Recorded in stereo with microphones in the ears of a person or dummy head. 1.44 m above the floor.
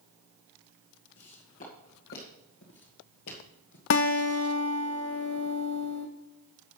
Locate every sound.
1.2 s footsteps: 20° left (ahead or behind), 2.5 m; by 3.8 s 45° left (ahead or behind), 2.0 m
3.9 s a guitar: 40° left (ahead or behind), 0.8 m